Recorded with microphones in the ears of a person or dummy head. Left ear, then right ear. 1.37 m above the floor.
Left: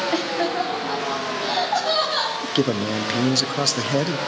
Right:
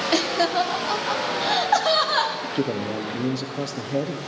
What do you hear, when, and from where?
0.1 s laughter: 75° right (ahead or behind), 1.0 m; by 2.3 s 35° right (ahead or behind), 2.5 m
2.4 s a man speaking: 45° left (ahead or behind), 0.8 m